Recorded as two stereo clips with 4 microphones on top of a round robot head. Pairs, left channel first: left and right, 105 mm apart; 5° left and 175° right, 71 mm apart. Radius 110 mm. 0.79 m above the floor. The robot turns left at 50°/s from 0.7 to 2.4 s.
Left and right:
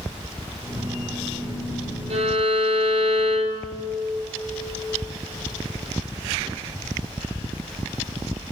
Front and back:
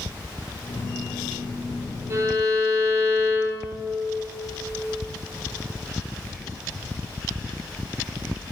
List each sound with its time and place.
2.1 s a violin: 115° right, 1.8 m; by 3.8 s 130° right, 1.8 m